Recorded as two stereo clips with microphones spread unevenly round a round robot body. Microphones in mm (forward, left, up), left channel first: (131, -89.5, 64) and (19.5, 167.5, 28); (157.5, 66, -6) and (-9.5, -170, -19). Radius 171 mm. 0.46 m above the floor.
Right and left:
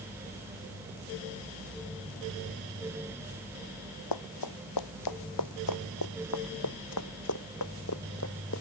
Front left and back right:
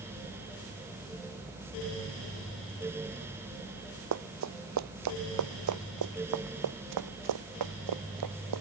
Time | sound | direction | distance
4.1 | running footsteps | 95° right | ?